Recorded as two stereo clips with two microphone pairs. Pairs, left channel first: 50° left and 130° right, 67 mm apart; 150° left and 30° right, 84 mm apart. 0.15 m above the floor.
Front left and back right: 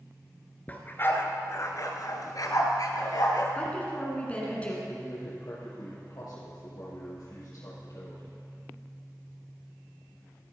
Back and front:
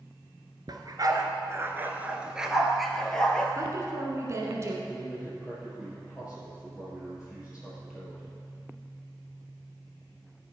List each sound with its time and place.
0.7 s a dog barking: 10° right, 1.0 m; by 3.5 s 70° left, 1.5 m
3.5 s a woman speaking: 10° right, 2 m
4.9 s a man speaking: 50° left, 3.5 m